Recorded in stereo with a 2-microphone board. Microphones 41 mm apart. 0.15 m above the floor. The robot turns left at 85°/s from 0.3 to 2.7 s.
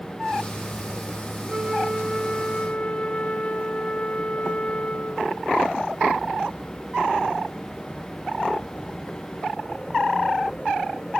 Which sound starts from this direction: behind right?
A flute, at 1.5 s.